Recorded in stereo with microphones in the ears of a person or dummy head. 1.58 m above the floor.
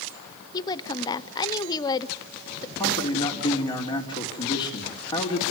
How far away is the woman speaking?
About 0.8 m.